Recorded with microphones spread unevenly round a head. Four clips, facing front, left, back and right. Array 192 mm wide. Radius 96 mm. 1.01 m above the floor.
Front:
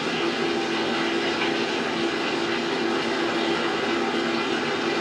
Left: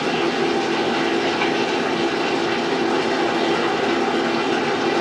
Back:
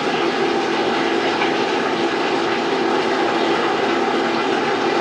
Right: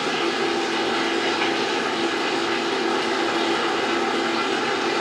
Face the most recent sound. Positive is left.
turn(degrees=160)